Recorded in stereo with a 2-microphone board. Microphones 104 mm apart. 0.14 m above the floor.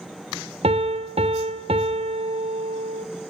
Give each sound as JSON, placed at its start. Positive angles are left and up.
{"t": 0.6, "sound": "a piano", "side_deg": -75, "distance_m": 0.9}